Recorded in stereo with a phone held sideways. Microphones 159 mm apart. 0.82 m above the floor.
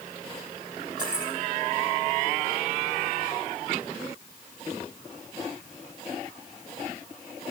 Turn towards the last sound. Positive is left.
turn(degrees=-30)  # may be behind; listen again after turning